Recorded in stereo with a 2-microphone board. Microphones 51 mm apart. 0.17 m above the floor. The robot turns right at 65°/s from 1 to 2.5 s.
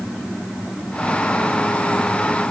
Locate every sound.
Only background noise.